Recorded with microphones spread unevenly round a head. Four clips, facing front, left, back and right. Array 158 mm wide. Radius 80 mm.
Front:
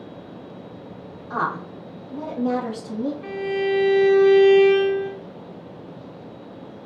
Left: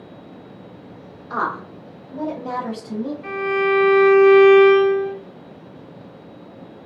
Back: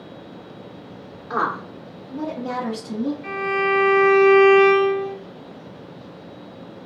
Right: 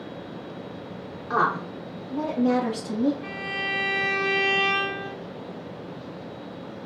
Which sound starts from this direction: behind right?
A woman speaking, at 1.3 s.